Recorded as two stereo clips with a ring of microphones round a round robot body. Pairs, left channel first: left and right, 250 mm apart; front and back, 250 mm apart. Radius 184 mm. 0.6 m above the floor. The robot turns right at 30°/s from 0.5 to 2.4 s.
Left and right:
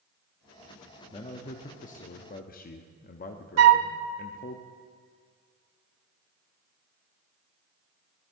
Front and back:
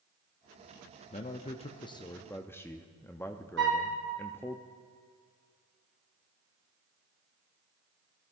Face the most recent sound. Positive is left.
turn(degrees=-120)